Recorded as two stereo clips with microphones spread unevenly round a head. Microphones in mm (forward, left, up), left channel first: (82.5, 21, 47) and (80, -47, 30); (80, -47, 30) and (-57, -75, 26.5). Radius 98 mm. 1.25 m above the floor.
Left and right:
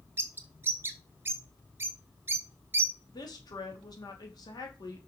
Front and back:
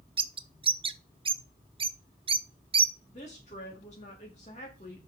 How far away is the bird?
About 0.6 m.